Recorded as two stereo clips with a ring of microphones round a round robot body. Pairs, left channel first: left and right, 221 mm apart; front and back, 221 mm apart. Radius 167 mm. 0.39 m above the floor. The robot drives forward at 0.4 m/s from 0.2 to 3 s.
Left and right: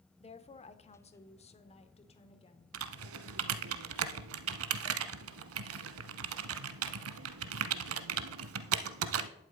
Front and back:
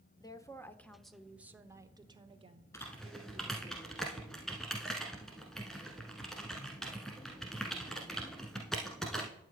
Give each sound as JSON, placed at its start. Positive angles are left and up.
{"t": 0.2, "sound": "a woman speaking", "azimuth_deg": 55, "distance_m": 1.2}
{"t": 2.7, "sound": "typing on a keyboard", "azimuth_deg": -80, "distance_m": 0.8}